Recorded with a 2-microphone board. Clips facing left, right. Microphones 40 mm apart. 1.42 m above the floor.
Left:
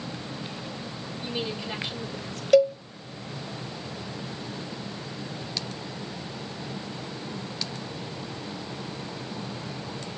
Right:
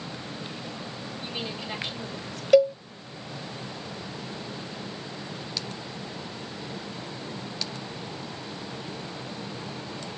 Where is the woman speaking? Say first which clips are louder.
Left 4 dB; 20° right (ahead or behind), 3 m.